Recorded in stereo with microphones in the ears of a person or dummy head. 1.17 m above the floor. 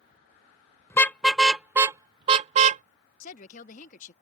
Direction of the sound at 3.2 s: 45° left (ahead or behind).